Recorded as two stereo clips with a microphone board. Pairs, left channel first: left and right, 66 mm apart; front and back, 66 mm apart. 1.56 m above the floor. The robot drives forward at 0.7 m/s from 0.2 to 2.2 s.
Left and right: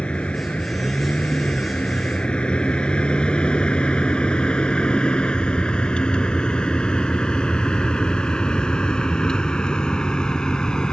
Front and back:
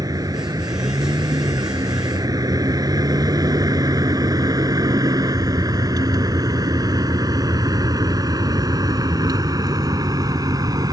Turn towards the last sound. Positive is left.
turn(degrees=170)